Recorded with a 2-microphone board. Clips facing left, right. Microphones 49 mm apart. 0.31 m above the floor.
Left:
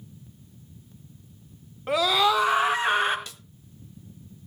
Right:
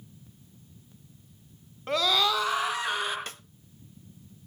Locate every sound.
1.9 s a scream: 10° left (ahead or behind), 2.5 m; by 3.2 s 35° left (ahead or behind), 3.5 m
3.3 s a snare drum: 45° right (ahead or behind), 0.5 m